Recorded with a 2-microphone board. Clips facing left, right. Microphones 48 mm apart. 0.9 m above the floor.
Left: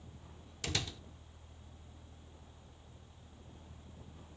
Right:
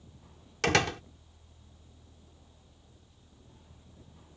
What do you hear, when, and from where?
0.6 s a door slam: 70° right (ahead or behind)